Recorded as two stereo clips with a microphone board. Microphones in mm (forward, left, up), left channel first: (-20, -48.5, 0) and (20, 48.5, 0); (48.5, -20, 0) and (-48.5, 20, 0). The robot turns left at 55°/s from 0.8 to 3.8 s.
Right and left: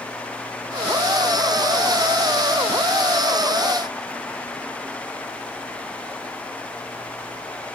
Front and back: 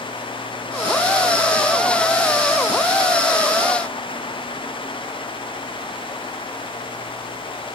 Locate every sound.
Only background noise.